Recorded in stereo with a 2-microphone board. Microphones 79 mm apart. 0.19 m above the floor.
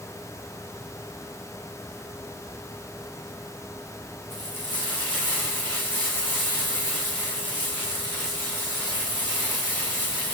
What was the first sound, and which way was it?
Frying, 25° left (ahead or behind).